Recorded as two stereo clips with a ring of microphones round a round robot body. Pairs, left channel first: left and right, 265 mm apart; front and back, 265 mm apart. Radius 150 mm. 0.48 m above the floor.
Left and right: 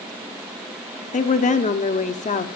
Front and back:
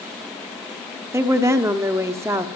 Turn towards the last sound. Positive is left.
turn(degrees=110)